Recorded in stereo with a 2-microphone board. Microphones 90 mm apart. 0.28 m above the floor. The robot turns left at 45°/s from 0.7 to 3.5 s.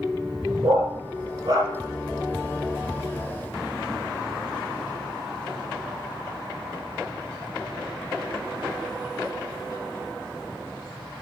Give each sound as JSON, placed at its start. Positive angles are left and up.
{"t": 0.6, "sound": "a dog barking", "side_deg": -85, "distance_m": 2.5}